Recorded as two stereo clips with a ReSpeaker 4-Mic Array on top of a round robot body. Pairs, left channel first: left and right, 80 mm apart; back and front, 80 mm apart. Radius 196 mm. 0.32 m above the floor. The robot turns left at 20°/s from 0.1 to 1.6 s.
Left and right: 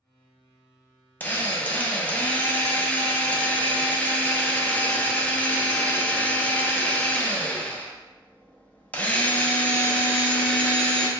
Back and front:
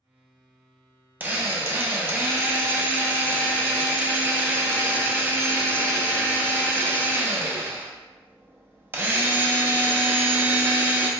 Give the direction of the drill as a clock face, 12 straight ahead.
11 o'clock.